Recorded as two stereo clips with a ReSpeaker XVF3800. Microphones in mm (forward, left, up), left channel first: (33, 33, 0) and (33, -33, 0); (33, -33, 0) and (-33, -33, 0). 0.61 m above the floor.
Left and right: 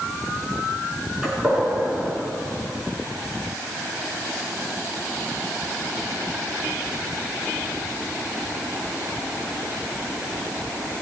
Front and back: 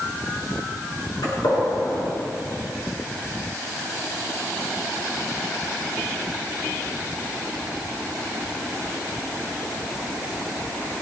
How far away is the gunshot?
About 6 m.